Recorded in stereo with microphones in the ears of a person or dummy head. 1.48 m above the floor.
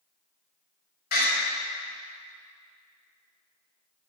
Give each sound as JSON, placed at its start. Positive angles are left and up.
{"t": 1.1, "sound": "a door slam", "side_deg": 55, "distance_m": 5.0}